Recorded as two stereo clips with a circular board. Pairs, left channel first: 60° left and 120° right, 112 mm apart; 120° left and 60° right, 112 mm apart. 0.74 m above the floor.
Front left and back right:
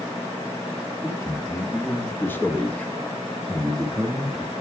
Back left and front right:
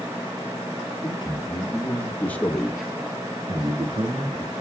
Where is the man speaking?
115° left, 1.4 m; by 4.5 s 40° right, 1.5 m.